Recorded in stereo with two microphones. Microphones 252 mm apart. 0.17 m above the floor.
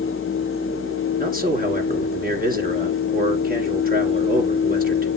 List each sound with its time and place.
1.2 s a man speaking: 35° right (ahead or behind), 2.5 m